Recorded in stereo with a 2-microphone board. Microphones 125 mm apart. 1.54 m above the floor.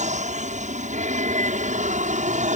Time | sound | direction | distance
0.0 | an aircraft | 70° right (ahead or behind) | ?